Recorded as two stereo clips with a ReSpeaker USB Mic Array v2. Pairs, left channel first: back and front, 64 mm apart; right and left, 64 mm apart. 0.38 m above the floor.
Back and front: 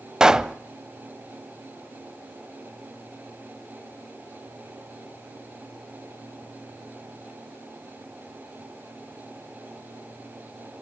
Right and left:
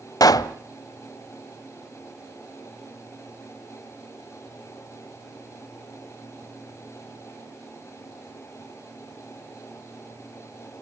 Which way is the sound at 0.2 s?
80° right.